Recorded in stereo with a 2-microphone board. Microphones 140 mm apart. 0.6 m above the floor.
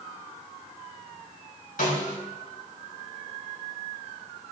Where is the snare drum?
75° left (ahead or behind), 5 m.